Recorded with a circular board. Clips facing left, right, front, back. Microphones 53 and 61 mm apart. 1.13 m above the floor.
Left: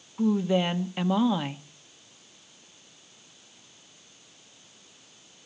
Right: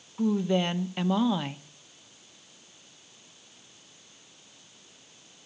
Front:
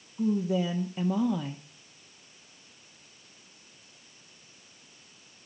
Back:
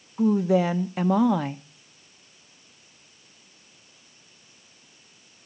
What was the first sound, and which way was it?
A woman speaking, 175° left.